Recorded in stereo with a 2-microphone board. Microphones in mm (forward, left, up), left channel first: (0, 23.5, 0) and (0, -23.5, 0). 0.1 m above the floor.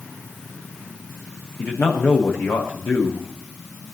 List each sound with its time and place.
1.6 s a man speaking: 75° left (ahead or behind), 5.5 m